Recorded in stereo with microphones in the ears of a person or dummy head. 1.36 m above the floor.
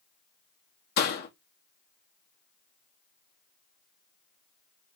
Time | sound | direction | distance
1.0 | a door slam | 55° left (ahead or behind) | 1.2 m